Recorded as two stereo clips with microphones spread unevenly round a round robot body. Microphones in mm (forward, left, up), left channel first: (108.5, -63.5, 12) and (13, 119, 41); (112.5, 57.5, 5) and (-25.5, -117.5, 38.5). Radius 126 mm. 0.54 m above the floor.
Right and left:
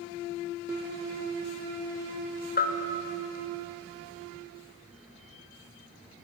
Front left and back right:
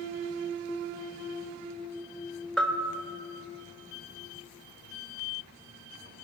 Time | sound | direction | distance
2.6 | a bell | 30° right | 2 m